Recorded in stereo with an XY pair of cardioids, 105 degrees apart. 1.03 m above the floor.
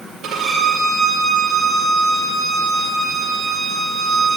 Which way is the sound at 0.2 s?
65° right.